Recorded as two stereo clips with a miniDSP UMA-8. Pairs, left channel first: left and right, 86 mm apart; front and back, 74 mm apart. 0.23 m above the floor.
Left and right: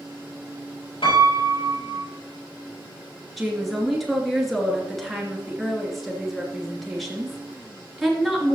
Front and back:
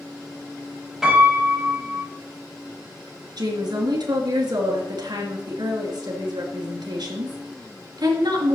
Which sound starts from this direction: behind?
A woman speaking, at 3.4 s.